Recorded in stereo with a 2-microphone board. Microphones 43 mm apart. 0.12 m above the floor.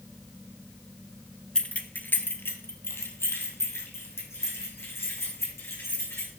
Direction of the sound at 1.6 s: 20° left (ahead or behind).